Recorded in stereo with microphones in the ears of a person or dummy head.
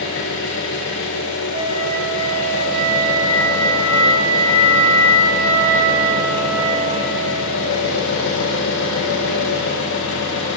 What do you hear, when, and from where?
0.0 s an engine running: 65° left (ahead or behind), 1.0 m
1.5 s a flute: 70° right (ahead or behind), 3.5 m